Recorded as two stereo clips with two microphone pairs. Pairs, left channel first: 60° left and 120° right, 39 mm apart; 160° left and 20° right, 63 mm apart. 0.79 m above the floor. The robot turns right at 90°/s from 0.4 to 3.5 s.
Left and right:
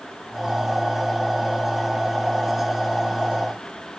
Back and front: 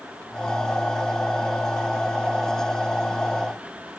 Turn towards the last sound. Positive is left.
No sound to turn to.